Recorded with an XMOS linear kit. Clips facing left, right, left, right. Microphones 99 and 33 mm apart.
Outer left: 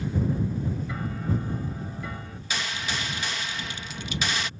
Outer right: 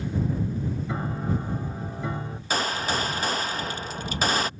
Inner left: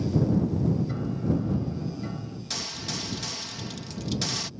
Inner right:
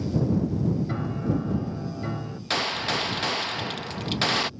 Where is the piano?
30° right (ahead or behind).